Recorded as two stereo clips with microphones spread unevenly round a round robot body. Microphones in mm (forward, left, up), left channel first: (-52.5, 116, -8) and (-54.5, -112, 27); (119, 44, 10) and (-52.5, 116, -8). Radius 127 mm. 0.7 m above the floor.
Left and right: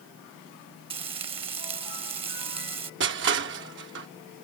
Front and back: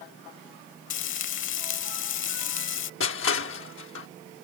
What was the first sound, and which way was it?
Frying, 20° right.